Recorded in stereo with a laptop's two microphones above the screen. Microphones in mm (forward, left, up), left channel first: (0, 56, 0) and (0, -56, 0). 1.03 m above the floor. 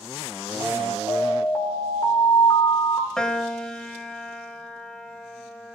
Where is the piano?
5° left (ahead or behind), 0.9 m.